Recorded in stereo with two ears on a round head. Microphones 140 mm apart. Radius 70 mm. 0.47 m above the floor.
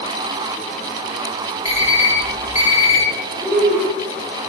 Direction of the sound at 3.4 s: 5° left (ahead or behind).